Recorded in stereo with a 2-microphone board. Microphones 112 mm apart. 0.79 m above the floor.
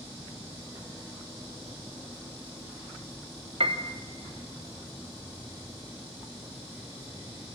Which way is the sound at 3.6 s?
60° right (ahead or behind).